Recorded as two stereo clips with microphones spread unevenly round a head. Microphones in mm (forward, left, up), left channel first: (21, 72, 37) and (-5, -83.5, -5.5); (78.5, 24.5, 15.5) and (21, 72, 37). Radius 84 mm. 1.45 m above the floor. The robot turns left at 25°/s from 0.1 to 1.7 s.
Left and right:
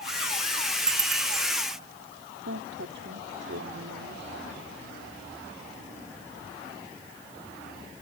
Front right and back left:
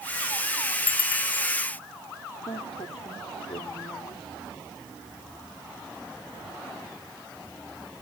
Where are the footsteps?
I don't hear footsteps.